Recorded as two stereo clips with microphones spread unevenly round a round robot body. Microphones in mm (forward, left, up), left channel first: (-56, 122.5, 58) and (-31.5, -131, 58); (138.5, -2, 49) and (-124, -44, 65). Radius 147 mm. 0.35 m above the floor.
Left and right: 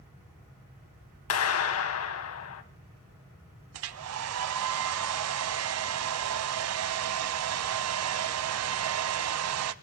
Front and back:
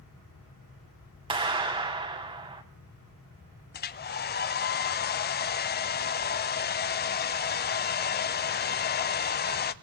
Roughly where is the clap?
Behind left.